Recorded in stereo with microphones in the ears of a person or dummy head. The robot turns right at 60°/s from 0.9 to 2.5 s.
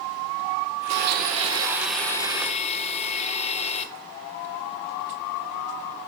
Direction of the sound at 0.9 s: 60° right.